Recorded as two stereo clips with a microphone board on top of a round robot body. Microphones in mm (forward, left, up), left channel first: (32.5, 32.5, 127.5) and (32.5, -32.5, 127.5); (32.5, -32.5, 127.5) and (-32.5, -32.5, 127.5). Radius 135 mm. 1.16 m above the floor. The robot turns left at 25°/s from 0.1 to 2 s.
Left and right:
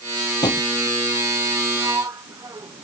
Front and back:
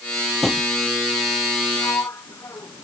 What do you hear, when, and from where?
0.4 s a drawer: 85° left; by 0.7 s 80° left
1.8 s a sliding door: 45° right; by 2.9 s 50° right